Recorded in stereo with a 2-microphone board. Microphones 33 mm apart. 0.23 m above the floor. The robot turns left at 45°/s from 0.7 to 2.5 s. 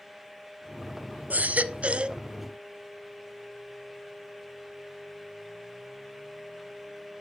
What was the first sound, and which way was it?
A baby crying, 105° right.